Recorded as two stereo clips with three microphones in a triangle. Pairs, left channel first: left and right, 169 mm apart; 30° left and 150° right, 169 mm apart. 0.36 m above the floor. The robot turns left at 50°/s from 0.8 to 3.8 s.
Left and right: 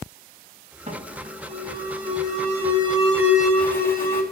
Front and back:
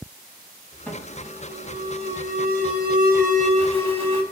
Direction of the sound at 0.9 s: 50° right.